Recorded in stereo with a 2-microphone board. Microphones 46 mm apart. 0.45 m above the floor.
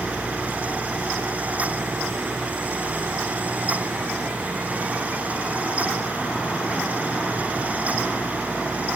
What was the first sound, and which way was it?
Only background noise.